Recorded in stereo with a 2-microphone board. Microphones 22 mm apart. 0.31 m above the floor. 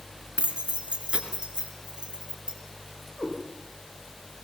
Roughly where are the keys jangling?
Right.